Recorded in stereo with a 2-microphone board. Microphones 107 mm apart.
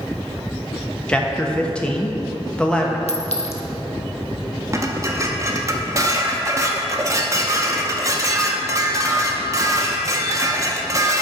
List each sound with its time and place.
1.1 s a man speaking: 10° left (ahead or behind), 0.8 m
3.1 s a clink: 85° left, 0.7 m
4.7 s dishes clattering: 30° right (ahead or behind), 0.7 m